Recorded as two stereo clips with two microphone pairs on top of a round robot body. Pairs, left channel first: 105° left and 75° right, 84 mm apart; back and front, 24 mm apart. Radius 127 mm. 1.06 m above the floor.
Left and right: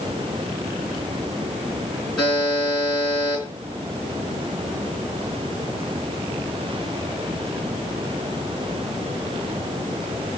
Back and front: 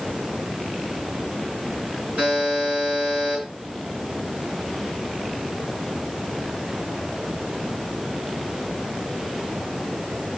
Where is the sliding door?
I don't hear a sliding door.